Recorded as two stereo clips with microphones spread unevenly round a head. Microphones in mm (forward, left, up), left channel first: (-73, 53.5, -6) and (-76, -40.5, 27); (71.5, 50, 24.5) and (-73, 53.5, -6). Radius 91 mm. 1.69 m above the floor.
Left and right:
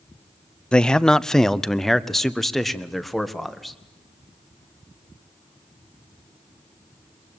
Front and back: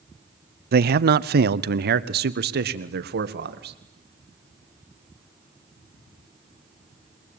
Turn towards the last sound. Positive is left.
turn(degrees=175)